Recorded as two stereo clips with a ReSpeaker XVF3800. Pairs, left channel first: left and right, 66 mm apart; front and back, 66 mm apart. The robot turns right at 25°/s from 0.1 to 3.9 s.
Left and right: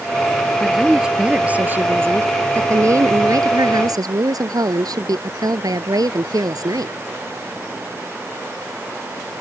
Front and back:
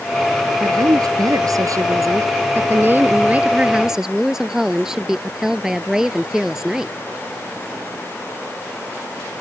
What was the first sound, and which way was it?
A woman speaking, straight behind.